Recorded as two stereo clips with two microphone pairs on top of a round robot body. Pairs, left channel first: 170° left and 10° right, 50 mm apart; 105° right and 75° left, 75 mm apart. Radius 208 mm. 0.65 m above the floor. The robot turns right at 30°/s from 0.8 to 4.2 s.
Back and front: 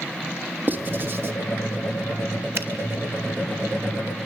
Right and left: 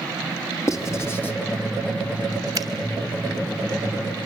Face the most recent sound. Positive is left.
turn(degrees=75)